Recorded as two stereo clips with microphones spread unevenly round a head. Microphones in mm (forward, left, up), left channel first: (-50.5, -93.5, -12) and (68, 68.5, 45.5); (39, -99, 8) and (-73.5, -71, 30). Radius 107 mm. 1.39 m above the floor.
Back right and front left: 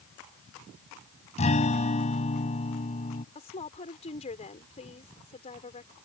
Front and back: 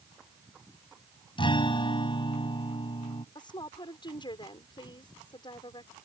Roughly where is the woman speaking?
Ahead right.